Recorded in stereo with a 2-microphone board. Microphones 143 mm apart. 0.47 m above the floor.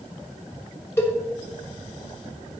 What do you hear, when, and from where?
1.0 s a cowbell: 15° left (ahead or behind), 1.4 m